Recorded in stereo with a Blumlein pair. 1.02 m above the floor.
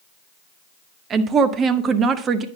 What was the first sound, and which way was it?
A woman speaking, 25° right.